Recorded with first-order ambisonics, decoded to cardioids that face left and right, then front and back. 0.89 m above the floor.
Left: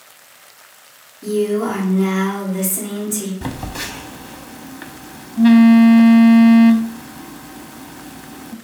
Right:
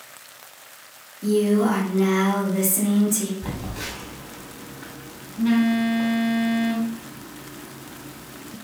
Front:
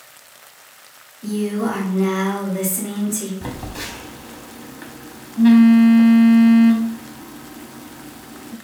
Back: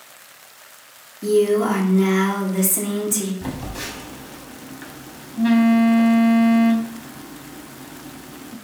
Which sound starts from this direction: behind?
A woman speaking, at 1.2 s.